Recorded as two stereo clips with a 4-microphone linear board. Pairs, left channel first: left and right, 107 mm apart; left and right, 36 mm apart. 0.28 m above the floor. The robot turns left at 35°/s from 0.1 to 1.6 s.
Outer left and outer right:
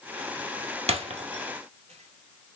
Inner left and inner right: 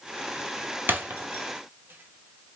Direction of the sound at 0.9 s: 65° right (ahead or behind).